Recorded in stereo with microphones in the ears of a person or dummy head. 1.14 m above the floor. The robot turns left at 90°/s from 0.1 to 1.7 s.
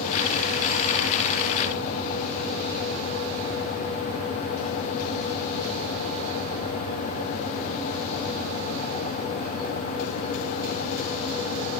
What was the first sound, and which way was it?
Only background noise.